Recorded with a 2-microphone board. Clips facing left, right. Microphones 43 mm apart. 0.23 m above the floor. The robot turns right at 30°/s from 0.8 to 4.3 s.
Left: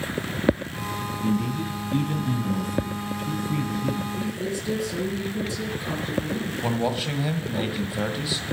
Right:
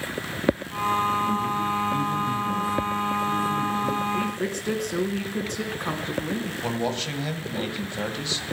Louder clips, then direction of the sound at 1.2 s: Right 2 dB; 45° left.